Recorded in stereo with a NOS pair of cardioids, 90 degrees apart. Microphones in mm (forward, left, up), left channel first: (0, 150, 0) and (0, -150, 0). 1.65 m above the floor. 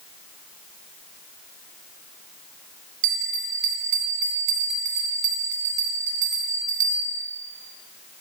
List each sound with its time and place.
3.0 s a bell: 70° right, 1.3 m